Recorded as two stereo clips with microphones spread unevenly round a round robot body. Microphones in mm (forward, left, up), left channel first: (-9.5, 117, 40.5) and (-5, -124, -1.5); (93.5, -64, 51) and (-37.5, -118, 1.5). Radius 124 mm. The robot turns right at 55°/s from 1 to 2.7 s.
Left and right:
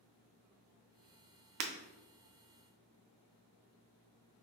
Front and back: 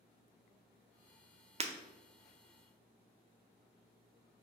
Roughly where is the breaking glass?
Right.